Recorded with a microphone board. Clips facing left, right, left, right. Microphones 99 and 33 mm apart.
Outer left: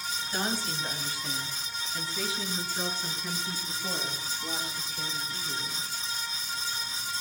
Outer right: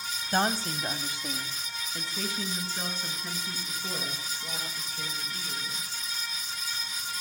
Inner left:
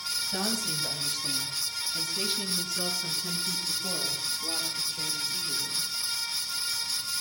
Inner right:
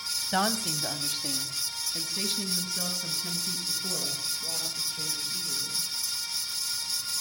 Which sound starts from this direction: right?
A woman speaking, at 0.3 s.